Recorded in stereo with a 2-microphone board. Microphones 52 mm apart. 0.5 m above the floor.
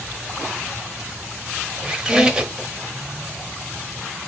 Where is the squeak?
10° right (ahead or behind), 0.8 m.